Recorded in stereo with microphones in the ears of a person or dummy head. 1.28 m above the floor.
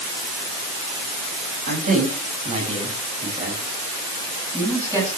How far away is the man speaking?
About 6.5 m.